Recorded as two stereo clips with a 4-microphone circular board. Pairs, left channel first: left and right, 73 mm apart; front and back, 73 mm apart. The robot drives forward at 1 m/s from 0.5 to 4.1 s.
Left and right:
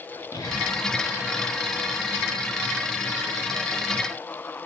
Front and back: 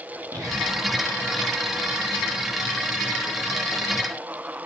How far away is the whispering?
About 4.5 m.